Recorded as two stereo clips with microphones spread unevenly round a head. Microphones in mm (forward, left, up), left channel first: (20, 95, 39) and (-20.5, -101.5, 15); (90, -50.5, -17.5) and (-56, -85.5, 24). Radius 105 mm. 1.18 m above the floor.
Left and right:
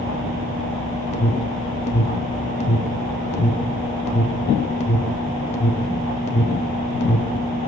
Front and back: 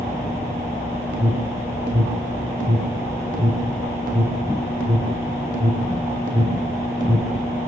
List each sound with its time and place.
1.1 s an alarm: 135° left, 2.5 m